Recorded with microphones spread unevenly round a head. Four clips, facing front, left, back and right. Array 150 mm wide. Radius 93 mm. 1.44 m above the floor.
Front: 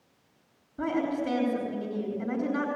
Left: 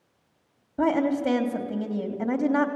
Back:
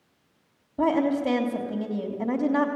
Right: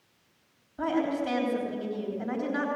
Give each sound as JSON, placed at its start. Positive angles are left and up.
{"t": 0.8, "sound": "a woman speaking", "azimuth_deg": 105, "distance_m": 3.0}